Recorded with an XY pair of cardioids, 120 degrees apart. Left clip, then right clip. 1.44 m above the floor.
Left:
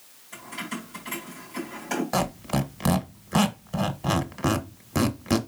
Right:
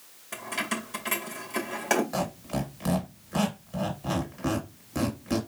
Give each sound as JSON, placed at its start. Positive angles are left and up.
{"t": 0.3, "sound": "keys jangling", "azimuth_deg": -70, "distance_m": 1.7}
{"t": 2.1, "sound": "a squeak", "azimuth_deg": 50, "distance_m": 1.2}